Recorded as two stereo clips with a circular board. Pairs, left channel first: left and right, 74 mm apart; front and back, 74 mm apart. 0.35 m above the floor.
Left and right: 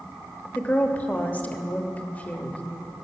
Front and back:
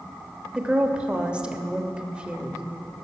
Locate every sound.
0.6 s a woman speaking: 125° left, 0.9 m